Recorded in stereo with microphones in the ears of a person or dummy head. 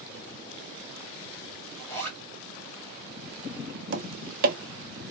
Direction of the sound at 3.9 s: 55° right (ahead or behind).